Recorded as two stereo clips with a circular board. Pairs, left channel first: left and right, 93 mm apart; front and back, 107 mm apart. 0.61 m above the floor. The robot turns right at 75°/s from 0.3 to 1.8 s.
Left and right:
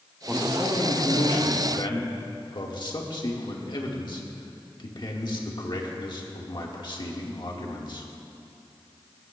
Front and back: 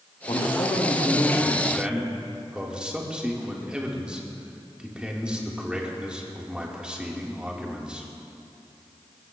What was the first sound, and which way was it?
A man speaking, 10° right.